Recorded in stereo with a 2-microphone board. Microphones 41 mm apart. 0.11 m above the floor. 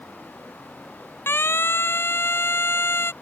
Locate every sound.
1.3 s a siren: 70° left (ahead or behind); by 3.1 s 75° left (ahead or behind)